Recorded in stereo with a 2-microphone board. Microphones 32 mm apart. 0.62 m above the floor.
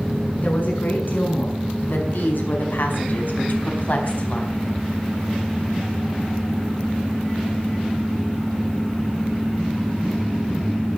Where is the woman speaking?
70° left (ahead or behind), 6.5 m; by 4.7 s 45° left (ahead or behind), 4.5 m.